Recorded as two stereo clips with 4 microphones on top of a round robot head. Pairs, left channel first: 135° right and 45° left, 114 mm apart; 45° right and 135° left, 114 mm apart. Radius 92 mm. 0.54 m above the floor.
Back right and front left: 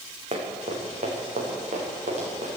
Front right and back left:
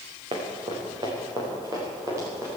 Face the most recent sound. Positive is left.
turn(degrees=65)